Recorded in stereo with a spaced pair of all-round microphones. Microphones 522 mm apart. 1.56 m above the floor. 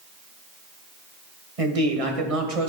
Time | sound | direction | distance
1.6 | a man speaking | 80° right | 1.5 m